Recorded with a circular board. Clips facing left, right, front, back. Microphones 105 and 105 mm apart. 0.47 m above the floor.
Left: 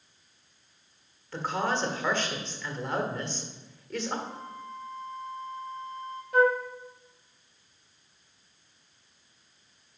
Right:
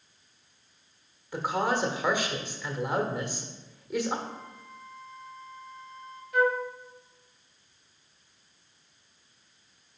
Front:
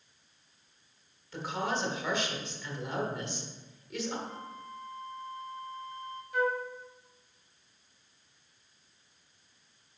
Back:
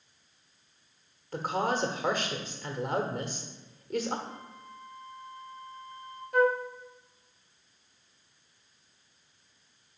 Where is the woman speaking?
165° right, 1.2 m.